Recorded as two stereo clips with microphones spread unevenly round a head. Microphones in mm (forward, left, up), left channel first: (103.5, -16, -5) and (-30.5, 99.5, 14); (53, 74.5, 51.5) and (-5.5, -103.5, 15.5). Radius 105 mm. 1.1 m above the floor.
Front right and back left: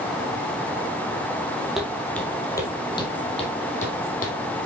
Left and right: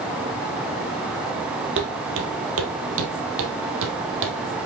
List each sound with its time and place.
1.8 s footsteps: 140° right, 1.6 m; by 4.4 s 90° right, 2 m